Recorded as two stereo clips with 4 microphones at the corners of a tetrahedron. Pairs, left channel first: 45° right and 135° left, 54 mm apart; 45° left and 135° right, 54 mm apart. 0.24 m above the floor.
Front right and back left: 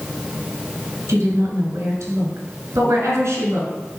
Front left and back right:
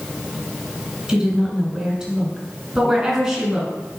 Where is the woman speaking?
150° left, 2.5 m.